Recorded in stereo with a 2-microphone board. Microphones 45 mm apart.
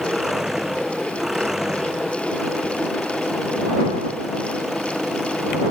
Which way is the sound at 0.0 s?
10° right (ahead or behind).